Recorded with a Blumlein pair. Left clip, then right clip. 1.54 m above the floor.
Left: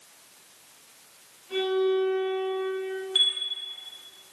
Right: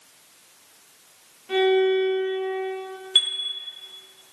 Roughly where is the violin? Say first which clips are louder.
Right 5 dB; ahead right.